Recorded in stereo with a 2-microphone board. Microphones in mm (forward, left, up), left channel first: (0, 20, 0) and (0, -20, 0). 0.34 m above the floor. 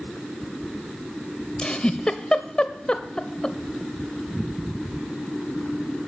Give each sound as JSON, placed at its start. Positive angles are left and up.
{"t": 1.6, "sound": "a giggle", "side_deg": 20, "distance_m": 0.5}